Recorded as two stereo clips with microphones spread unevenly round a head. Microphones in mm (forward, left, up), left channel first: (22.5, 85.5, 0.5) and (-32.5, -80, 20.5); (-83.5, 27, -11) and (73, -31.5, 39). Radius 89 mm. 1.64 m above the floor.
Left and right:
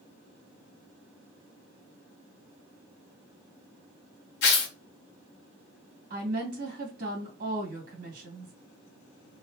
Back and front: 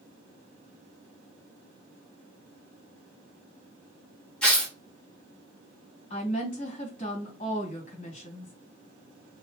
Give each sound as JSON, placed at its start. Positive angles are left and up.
{"t": 4.4, "sound": "tearing paper", "azimuth_deg": 60, "distance_m": 1.4}
{"t": 6.1, "sound": "a woman speaking", "azimuth_deg": -140, "distance_m": 2.0}